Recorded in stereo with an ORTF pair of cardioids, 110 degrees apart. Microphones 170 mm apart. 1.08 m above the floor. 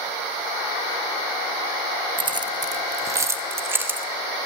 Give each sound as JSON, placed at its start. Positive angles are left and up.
{"t": 2.2, "sound": "keys jangling", "azimuth_deg": -30, "distance_m": 0.8}